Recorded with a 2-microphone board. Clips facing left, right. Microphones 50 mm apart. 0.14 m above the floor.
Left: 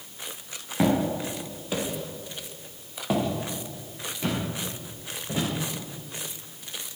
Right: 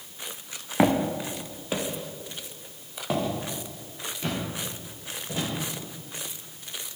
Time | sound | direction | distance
0.8 | footsteps | 35° right (ahead or behind) | 1.5 m